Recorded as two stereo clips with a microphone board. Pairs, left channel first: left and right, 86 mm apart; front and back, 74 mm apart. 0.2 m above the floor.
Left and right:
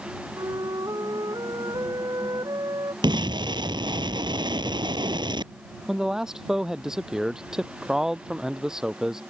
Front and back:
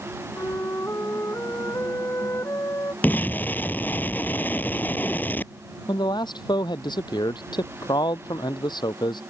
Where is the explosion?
65° right.